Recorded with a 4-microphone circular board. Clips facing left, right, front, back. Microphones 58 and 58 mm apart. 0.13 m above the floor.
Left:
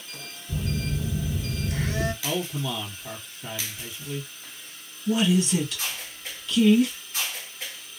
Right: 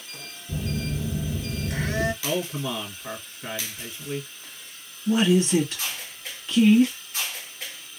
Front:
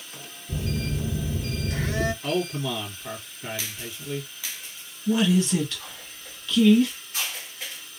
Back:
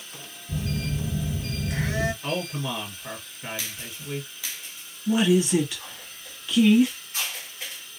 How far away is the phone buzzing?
About 2 m.